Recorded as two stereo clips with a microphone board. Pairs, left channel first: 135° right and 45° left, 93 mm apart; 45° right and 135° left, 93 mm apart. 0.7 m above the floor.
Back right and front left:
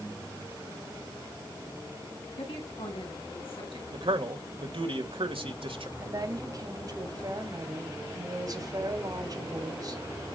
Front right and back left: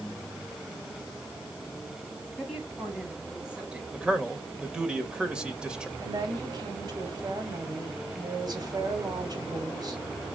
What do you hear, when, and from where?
2.4 s a woman speaking: 135° right, 5 m; by 3.8 s 145° right, 5.5 m
3.9 s a man speaking: 55° left, 2.5 m
6.0 s a woman speaking: 95° left, 4.5 m